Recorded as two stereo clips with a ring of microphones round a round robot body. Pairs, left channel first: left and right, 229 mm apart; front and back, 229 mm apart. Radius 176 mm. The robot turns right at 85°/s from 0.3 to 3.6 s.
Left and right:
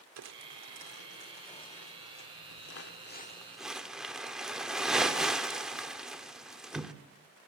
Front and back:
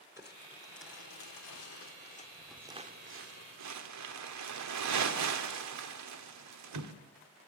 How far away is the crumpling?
About 1.6 m.